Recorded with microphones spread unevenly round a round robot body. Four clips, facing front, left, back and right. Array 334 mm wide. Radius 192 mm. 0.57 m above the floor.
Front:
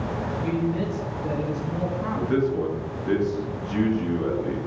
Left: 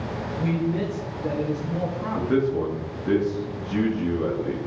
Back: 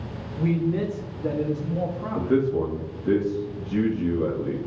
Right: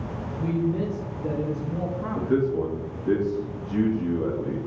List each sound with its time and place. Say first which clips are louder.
0.4 s a man speaking: even, back 3 dB; 175° left, 2 m; by 3.1 s 35° right, 1.5 m
2.1 s a man speaking: left 1 dB, back 2 dB; 175° right, 1.3 m